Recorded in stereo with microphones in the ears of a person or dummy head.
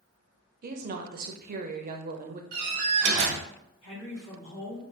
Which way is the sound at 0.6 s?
40° right (ahead or behind).